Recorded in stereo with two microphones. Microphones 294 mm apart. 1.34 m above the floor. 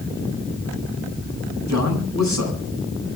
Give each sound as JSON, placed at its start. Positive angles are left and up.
{"t": 1.7, "sound": "a man speaking", "side_deg": -65, "distance_m": 9.0}